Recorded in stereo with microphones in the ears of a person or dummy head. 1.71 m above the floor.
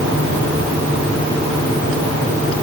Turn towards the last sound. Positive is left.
No sound to turn to.